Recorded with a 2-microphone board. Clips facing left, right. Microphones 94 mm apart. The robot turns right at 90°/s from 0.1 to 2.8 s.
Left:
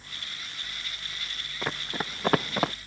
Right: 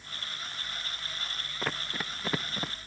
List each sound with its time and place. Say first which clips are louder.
1.6 s running footsteps: left 3 dB; centre (ahead or behind); by 2.7 s 80° left